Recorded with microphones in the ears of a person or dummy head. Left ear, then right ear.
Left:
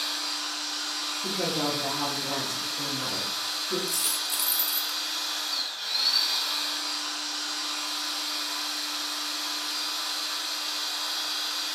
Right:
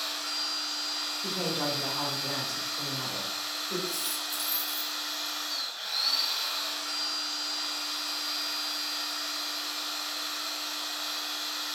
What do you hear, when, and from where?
0.0 s a machine running: 15° right (ahead or behind), 2 m
1.2 s a woman speaking: 5° right (ahead or behind), 1.9 m
3.9 s a dropped coin: 35° left (ahead or behind), 0.8 m